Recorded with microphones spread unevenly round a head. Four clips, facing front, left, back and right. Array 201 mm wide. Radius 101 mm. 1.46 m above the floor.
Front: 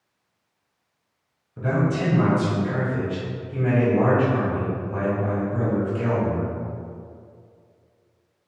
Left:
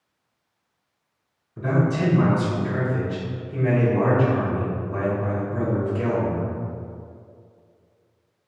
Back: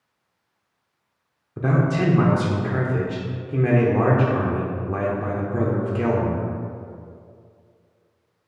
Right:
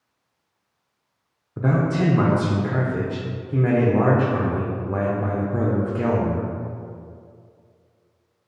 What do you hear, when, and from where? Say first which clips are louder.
1.6 s a man speaking: right 1 dB, back 2 dB; 130° right, 0.6 m